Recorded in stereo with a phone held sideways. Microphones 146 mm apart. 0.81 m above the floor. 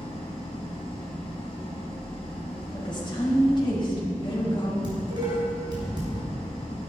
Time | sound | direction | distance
0.0 | an engine running | 40° left (ahead or behind) | 5 m
2.7 | a woman speaking | 35° left (ahead or behind) | 5 m
4.8 | dishes clattering | 30° right (ahead or behind) | 4.5 m